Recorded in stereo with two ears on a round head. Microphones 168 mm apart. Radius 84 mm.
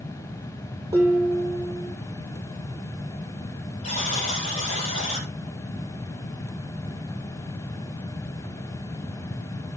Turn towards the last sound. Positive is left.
turn(degrees=40)  # may be behind; listen again after turning